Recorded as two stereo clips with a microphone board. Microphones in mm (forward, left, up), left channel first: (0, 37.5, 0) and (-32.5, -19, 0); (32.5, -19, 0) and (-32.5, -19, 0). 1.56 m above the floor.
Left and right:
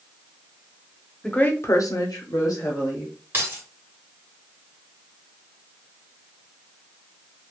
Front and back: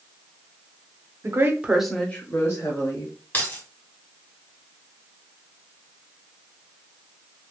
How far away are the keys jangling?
About 1.1 m.